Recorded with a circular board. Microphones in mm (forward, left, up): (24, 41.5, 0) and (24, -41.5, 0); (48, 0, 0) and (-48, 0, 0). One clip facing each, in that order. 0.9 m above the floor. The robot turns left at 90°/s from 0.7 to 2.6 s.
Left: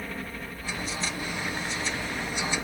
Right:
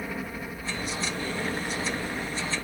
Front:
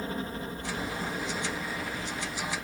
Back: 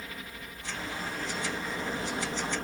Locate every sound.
0.0 s a helicopter: 15° right; by 2.6 s 160° left